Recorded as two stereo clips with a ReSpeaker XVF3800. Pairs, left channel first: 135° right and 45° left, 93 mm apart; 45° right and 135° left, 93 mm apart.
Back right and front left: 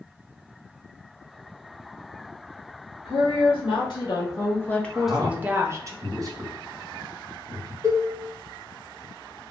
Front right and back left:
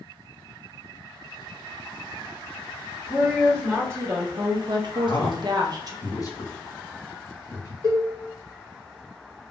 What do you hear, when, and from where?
3.0 s a woman speaking: 150° right, 1.1 m; by 5.9 s 95° left, 0.7 m
4.9 s a man speaking: straight ahead, 0.8 m
7.8 s a cowbell: 95° left, 0.7 m